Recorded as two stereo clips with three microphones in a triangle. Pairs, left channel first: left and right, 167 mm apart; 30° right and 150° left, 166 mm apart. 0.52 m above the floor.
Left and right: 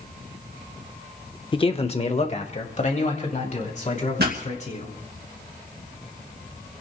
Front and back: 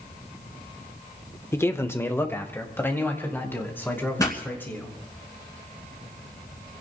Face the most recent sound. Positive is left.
turn(degrees=-100)